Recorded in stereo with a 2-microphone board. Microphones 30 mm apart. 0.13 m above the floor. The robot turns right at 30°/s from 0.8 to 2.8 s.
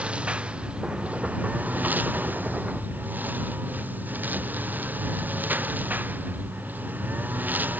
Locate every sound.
0.0 s a lawn mower: 140° right; by 7.8 s 80° right